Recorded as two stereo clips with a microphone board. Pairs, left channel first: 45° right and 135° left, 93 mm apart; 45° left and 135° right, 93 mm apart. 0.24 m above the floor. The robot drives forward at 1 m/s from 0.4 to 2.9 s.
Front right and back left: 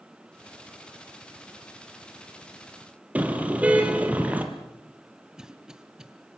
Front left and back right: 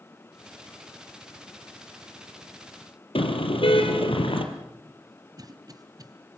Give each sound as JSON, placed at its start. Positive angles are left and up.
{"t": 3.1, "sound": "a car horn", "azimuth_deg": 60, "distance_m": 2.5}
{"t": 5.4, "sound": "a cough", "azimuth_deg": -145, "distance_m": 1.9}